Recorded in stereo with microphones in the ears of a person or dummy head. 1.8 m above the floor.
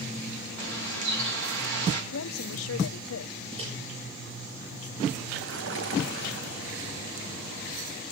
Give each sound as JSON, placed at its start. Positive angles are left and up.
{"t": 0.6, "sound": "a bird", "side_deg": -70, "distance_m": 4.0}
{"t": 2.1, "sound": "a woman speaking", "side_deg": 85, "distance_m": 1.0}
{"t": 3.5, "sound": "a microwave", "side_deg": -35, "distance_m": 8.0}
{"t": 5.3, "sound": "a splash", "side_deg": -70, "distance_m": 4.0}